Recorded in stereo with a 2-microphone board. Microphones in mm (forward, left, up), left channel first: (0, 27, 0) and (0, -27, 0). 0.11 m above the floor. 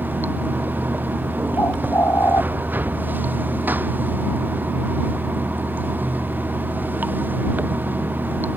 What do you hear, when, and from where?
0.0 s running water: 40° right (ahead or behind)
1.6 s a bird: 65° left (ahead or behind)